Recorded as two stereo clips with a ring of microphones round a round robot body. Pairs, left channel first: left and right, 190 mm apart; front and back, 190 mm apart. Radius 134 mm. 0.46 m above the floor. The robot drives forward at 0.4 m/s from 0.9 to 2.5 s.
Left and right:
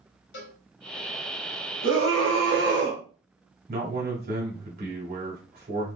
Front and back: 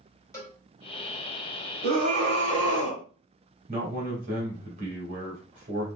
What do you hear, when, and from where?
0.3 s a cowbell: 75° left, 1.4 m
1.8 s a scream: 115° right, 2.5 m; by 3.0 s 120° right, 2.5 m
3.7 s a man speaking: 130° right, 2.5 m